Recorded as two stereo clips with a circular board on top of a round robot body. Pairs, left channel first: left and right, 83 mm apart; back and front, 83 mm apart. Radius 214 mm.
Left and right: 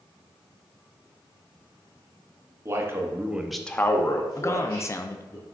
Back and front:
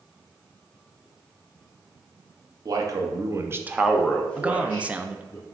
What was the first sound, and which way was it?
A man speaking, 40° right.